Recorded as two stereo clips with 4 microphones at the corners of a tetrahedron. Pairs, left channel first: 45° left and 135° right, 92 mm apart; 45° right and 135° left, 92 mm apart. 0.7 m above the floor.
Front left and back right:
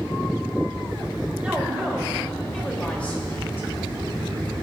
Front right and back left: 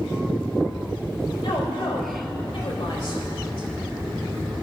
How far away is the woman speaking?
About 2.5 m.